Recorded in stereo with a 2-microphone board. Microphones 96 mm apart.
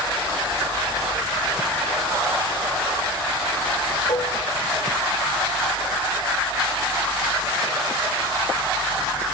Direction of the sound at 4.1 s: 75° left (ahead or behind).